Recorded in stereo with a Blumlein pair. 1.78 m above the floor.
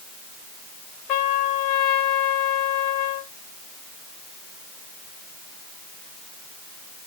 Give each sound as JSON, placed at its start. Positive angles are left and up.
{"t": 1.1, "sound": "a trumpet", "azimuth_deg": 35, "distance_m": 2.5}